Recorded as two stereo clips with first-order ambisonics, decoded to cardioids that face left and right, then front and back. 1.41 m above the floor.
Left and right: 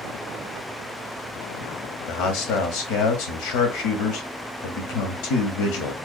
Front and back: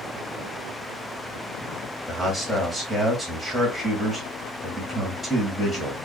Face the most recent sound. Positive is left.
turn(degrees=90)